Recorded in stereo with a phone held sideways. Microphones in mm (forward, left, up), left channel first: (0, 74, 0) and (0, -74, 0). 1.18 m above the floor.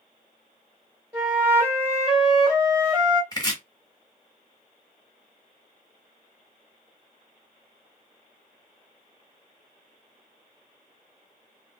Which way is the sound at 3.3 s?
25° left (ahead or behind).